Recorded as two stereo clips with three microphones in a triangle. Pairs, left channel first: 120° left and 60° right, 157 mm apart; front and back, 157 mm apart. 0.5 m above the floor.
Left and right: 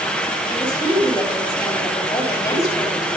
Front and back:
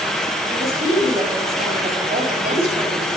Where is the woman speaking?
Straight behind, 4.5 m.